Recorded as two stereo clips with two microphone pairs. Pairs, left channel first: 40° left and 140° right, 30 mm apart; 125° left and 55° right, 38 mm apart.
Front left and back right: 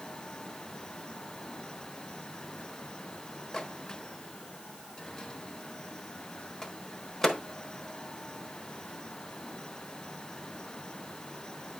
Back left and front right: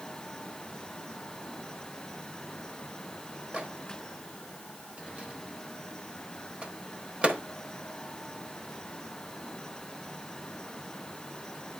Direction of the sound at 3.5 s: 20° right.